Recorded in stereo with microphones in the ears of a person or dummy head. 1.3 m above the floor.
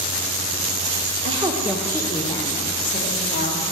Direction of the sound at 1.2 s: 35° right (ahead or behind).